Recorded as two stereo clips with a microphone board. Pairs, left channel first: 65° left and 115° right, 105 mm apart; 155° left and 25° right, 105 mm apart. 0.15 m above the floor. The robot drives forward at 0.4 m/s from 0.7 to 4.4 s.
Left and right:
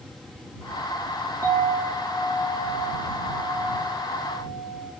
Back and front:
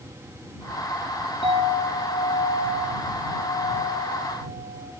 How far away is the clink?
About 5 m.